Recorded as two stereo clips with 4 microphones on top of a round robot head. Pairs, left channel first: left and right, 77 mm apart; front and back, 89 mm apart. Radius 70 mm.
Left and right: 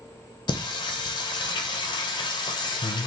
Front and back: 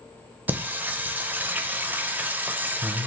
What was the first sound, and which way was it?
Singing, 110° left.